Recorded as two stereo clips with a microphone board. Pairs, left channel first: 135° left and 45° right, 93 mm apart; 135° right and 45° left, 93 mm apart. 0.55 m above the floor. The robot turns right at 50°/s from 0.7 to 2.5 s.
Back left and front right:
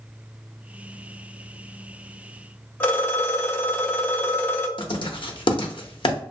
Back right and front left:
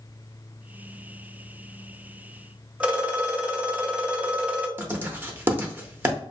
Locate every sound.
2.8 s a phone ringing: 105° left, 0.6 m
4.8 s writing: 110° left, 0.6 m